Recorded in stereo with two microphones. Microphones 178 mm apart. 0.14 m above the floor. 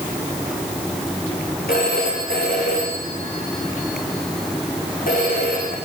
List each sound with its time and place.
1.7 s a phone ringing: 55° left (ahead or behind), 6.5 m